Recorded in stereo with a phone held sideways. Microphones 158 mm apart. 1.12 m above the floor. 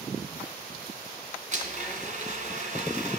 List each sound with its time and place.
1.5 s a blender: 50° right (ahead or behind), 3 m